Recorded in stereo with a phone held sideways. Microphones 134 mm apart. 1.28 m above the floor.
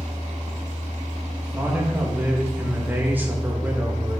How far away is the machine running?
About 1.4 m.